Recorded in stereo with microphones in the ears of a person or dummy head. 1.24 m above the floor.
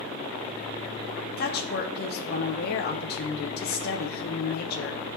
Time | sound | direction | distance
1.4 | a woman speaking | 50° left (ahead or behind) | 0.6 m